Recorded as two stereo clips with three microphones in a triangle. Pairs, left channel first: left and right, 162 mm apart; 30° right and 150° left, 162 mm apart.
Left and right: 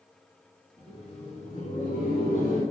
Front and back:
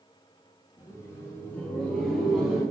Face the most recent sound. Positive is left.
turn(degrees=65)